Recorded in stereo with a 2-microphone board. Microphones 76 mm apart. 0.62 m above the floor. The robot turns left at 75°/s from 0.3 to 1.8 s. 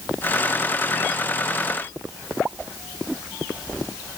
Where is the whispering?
I don't hear whispering.